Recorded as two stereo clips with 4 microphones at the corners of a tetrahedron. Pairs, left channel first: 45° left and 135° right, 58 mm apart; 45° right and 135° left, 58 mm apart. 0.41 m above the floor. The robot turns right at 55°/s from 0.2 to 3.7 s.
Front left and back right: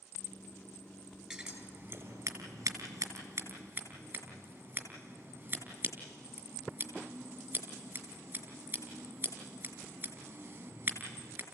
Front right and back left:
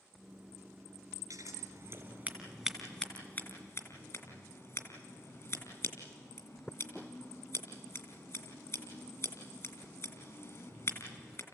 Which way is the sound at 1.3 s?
150° left.